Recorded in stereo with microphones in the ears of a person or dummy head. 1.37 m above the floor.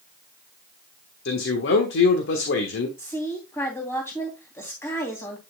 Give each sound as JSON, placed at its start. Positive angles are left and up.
{"t": 1.2, "sound": "a man speaking", "side_deg": 60, "distance_m": 1.4}
{"t": 3.0, "sound": "a woman speaking", "side_deg": 15, "distance_m": 3.0}